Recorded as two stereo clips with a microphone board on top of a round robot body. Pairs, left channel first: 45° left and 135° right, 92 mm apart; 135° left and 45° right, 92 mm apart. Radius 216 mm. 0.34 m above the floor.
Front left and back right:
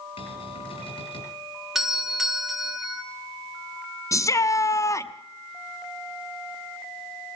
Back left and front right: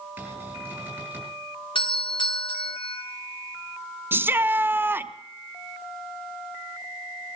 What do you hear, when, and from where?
0.2 s a cupboard door: 30° left, 5.5 m
1.8 s a doorbell: 140° left, 2.5 m
4.1 s a shout: 10° left, 1.0 m